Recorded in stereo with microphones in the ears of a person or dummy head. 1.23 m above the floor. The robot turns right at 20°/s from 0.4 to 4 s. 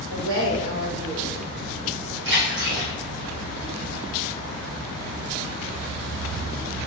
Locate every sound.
0.1 s a woman speaking: 80° right, 0.9 m
2.2 s a splash: 65° right (ahead or behind), 1.5 m; by 2.9 s 55° right (ahead or behind), 1.5 m